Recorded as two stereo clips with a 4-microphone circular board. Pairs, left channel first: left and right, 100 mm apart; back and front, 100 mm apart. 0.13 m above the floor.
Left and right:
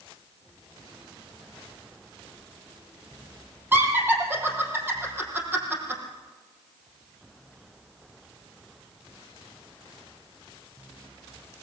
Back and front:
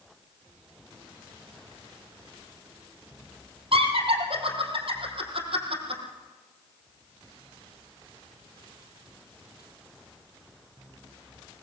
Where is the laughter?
20° right, 5.5 m.